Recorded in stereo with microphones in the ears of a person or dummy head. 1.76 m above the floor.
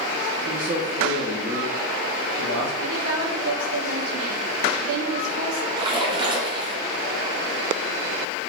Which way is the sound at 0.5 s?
15° right (ahead or behind).